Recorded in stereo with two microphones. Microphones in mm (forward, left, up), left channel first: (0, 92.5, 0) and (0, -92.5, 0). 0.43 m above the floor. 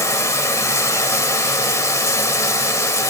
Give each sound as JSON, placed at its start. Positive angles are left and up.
{"t": 0.0, "sound": "running water", "side_deg": 15, "distance_m": 1.3}